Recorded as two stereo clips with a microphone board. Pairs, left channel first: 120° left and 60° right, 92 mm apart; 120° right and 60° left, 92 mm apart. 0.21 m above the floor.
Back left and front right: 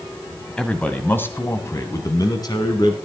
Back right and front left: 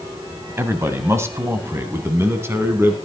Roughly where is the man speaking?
Ahead left.